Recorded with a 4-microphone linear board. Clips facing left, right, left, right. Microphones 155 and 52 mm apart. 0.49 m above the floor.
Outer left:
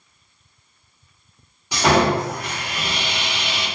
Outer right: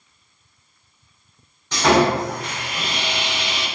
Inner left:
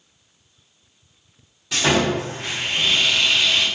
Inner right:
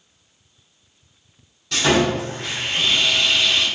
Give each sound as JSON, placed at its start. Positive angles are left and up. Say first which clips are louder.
{"t": 1.7, "sound": "sawing", "louder": "outer right 1 dB, inner right 1 dB", "side_deg": 10, "distance_m": 1.7}